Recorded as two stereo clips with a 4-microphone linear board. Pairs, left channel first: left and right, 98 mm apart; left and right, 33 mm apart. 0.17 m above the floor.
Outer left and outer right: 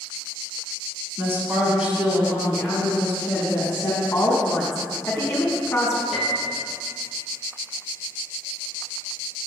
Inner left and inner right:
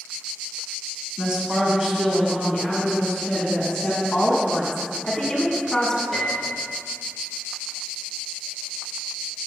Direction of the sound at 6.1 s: Centre (ahead or behind).